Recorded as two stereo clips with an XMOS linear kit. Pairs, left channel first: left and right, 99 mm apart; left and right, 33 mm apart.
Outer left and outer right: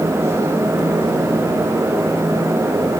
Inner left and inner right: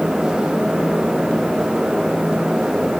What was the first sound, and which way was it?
Only background noise.